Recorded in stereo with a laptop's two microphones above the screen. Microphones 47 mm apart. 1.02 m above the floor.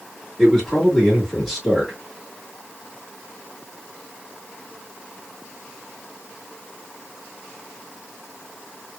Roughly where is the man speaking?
Centre.